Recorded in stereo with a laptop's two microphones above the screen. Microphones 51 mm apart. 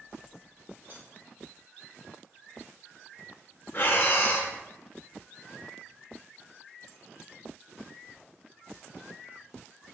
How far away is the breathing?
About 0.7 m.